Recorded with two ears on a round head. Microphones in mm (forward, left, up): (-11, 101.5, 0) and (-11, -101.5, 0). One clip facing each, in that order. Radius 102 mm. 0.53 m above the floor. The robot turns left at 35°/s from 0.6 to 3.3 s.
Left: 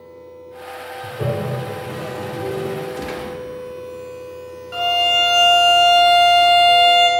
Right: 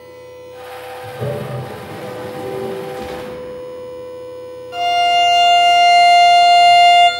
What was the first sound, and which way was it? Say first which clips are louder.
A toilet flushing: left 1 dB; 15° left (ahead or behind).